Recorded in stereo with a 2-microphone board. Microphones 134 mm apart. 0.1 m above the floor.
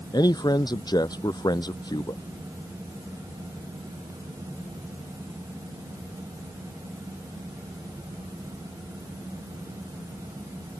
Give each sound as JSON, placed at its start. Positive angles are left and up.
{"t": 0.1, "sound": "a man speaking", "side_deg": 30}